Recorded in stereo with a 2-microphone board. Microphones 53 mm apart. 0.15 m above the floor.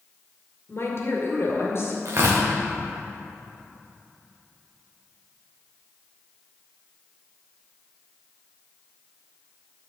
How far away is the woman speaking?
About 2 m.